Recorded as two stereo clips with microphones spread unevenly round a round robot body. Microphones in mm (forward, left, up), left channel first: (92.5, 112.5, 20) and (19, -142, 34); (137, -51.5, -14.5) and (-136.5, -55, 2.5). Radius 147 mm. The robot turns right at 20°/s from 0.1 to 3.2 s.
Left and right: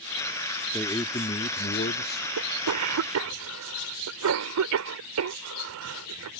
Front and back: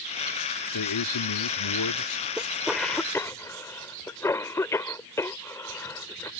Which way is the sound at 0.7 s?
5° right.